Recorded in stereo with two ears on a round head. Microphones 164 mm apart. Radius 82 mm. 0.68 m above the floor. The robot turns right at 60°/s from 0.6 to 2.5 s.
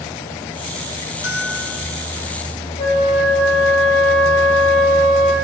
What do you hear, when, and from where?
1.2 s a bell: 115° left, 1.4 m; by 2.0 s 160° left, 1.4 m
2.8 s a flute: 40° left (ahead or behind), 2.5 m